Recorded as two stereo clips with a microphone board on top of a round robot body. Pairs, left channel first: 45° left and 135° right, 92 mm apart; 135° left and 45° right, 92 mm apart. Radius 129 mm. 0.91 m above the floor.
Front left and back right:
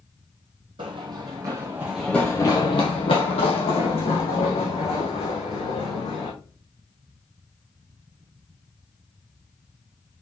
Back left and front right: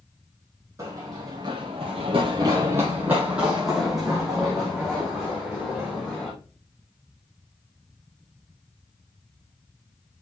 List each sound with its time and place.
0.8 s running footsteps: 100° right, 1.6 m; by 6.3 s 50° left, 4 m